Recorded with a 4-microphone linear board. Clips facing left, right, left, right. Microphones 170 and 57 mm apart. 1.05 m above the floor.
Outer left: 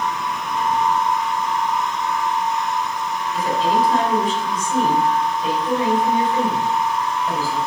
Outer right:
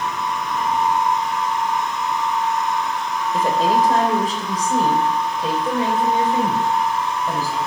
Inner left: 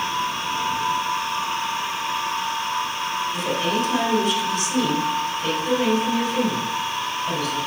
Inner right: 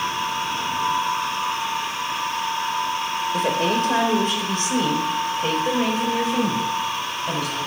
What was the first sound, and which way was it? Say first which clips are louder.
A woman speaking: outer right 1 dB, inner right 4 dB; 50° right (ahead or behind).